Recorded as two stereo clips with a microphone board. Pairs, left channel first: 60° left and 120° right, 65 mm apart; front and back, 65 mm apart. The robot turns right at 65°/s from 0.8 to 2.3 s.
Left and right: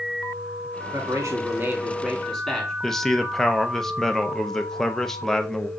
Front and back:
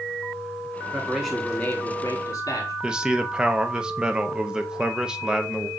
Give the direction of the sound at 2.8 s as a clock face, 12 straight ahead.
8 o'clock.